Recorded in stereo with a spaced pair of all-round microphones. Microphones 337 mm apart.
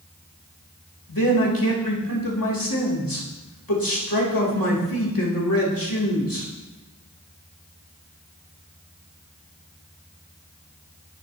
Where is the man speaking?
85° left, 2.5 m.